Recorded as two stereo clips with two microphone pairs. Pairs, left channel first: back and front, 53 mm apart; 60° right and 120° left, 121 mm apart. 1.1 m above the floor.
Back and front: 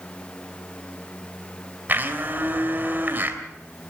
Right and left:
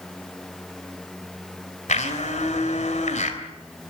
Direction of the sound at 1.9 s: 55° right.